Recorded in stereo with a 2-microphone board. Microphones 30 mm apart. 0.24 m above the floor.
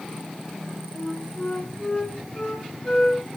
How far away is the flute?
About 2.5 m.